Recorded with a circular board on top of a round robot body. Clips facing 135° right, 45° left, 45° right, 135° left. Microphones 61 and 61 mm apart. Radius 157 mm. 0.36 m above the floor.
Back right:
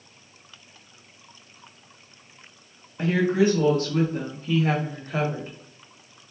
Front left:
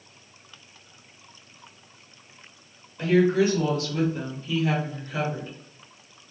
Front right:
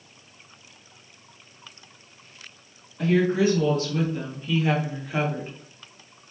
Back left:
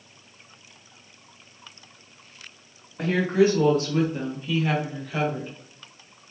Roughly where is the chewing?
I don't hear chewing.